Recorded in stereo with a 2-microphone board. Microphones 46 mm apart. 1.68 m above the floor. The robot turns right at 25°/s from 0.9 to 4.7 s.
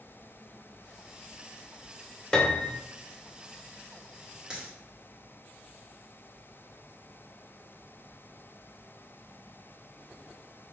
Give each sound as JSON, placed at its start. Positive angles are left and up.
{"t": 2.3, "sound": "a piano", "side_deg": 15, "distance_m": 0.5}
{"t": 4.5, "sound": "a dropped coin", "side_deg": -20, "distance_m": 1.1}